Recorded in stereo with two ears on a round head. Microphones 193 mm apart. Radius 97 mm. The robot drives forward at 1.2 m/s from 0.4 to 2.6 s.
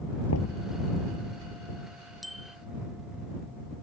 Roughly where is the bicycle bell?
Centre.